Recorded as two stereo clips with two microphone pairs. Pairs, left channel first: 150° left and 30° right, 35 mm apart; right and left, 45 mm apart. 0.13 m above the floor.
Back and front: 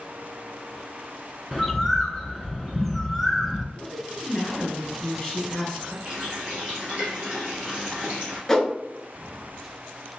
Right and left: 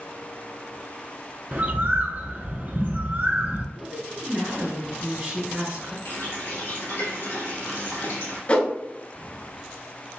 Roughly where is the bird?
Left.